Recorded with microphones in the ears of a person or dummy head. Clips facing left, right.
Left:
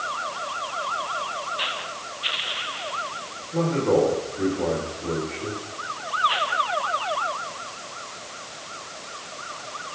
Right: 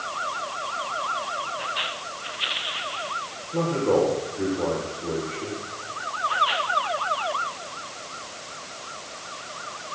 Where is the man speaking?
5° right (ahead or behind), 8 m.